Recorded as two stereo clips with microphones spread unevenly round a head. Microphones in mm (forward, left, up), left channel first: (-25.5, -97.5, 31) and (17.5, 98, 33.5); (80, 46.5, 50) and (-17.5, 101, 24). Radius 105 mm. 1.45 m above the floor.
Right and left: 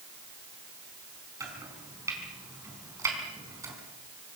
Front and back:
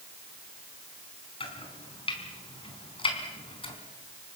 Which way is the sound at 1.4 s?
Straight ahead.